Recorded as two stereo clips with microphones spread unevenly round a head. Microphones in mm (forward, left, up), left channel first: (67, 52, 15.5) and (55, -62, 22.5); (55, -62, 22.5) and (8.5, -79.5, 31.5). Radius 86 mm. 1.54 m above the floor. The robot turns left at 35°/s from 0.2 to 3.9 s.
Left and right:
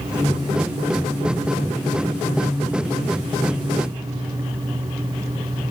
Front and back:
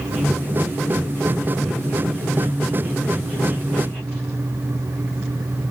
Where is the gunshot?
I don't hear a gunshot.